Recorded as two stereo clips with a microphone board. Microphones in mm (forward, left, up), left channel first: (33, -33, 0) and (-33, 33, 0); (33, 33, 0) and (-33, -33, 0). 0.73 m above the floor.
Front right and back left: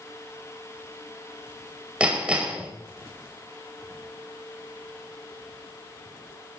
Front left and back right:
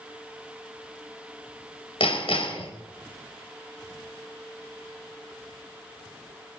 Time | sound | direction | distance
2.0 | hammering | 55° left | 3 m